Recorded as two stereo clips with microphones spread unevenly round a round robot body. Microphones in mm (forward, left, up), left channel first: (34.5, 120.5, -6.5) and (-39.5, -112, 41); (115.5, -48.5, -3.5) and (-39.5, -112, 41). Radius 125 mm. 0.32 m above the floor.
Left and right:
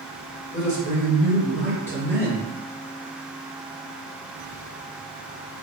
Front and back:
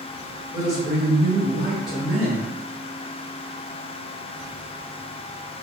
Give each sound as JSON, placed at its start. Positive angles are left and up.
{"t": 0.5, "sound": "a man speaking", "azimuth_deg": 10, "distance_m": 1.7}